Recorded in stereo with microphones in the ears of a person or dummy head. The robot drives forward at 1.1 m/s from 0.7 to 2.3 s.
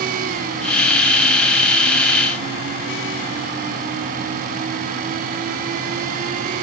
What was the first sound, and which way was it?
Only background noise.